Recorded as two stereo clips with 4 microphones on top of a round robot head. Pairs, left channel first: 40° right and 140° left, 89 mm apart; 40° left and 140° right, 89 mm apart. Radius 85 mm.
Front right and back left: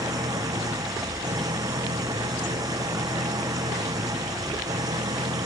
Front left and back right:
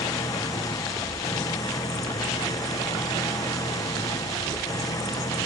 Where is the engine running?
90° left.